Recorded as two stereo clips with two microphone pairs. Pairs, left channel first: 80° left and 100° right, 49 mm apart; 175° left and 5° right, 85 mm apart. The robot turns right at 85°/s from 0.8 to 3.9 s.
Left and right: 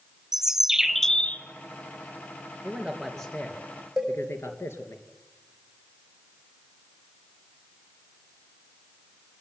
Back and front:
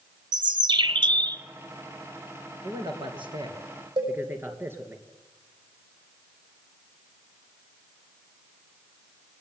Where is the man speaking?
50° right, 3 m; by 5.0 s 55° left, 3 m.